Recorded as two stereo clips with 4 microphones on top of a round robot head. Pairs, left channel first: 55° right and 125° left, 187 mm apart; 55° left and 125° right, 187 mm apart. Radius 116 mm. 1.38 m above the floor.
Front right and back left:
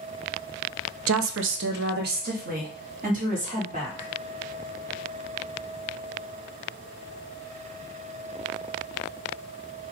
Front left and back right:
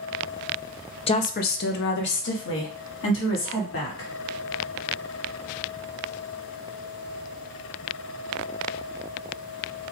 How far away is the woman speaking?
About 0.5 m.